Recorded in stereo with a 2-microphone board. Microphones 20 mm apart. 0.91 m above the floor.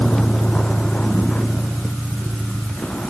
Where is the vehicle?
65° left (ahead or behind); by 3.1 s 85° left.